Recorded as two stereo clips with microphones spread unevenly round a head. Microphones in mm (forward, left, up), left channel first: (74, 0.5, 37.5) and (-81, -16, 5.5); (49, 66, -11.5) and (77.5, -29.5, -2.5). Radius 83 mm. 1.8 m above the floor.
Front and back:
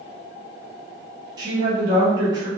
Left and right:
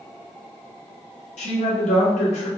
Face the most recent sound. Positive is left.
turn(degrees=115)